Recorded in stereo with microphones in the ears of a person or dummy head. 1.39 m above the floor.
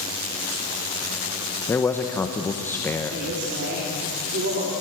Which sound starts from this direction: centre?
A man speaking, at 1.7 s.